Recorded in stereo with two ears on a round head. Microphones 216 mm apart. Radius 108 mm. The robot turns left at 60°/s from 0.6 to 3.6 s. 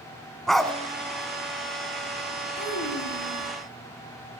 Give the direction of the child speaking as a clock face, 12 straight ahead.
7 o'clock.